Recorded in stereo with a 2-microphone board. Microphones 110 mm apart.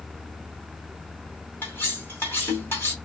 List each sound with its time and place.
1.6 s cutlery clinking: 20° left (ahead or behind), 2.5 m